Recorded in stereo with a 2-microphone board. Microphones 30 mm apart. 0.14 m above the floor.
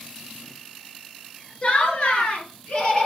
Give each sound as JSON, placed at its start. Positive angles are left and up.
{"t": 1.6, "sound": "laughter", "side_deg": 35, "distance_m": 2.5}